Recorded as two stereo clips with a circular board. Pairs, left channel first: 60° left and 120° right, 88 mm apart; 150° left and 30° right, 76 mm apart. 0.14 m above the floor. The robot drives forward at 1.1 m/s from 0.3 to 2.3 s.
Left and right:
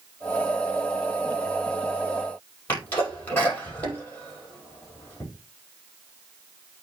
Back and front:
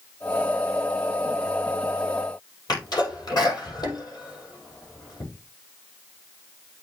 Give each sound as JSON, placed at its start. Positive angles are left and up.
{"t": 2.7, "sound": "a sneeze", "azimuth_deg": 125, "distance_m": 5.0}